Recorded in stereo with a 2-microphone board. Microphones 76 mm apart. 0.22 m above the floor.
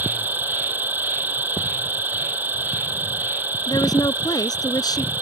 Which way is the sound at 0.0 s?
25° right (ahead or behind).